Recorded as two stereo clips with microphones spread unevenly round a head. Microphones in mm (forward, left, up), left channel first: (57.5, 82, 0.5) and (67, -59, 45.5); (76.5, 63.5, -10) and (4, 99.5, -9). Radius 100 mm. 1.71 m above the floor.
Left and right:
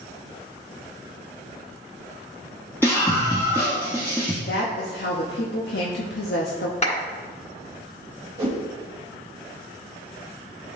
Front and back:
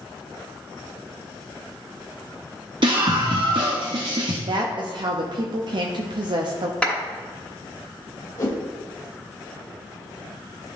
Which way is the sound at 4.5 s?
130° left.